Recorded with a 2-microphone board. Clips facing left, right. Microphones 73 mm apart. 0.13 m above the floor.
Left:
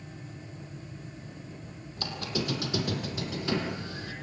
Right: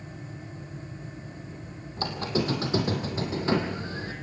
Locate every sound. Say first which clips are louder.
2.0 s a squeak: right 5 dB; 35° right (ahead or behind), 3 m